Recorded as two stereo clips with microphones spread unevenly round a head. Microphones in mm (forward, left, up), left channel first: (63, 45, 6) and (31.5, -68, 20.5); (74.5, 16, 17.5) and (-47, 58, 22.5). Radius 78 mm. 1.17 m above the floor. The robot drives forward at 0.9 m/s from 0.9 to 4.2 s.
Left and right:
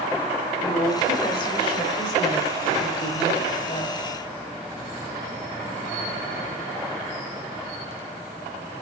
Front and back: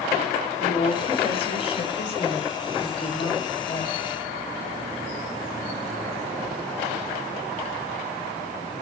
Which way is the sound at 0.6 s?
25° left.